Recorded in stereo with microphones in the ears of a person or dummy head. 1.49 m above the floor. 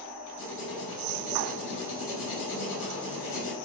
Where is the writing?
70° left (ahead or behind), 6 m.